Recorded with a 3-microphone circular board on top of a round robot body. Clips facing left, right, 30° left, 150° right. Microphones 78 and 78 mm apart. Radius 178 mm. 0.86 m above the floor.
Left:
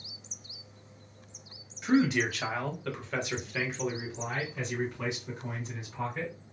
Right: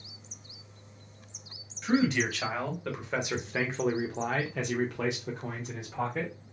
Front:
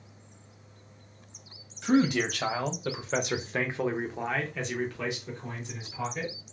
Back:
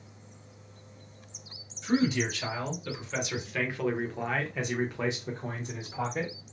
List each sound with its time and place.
1.8 s a man speaking: 10° left, 1.3 m; by 6.3 s 110° right, 1.4 m